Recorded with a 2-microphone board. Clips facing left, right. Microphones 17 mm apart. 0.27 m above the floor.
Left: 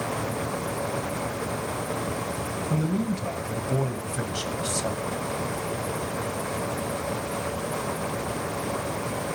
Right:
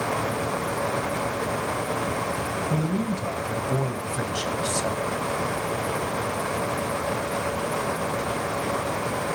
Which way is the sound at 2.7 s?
5° right (ahead or behind).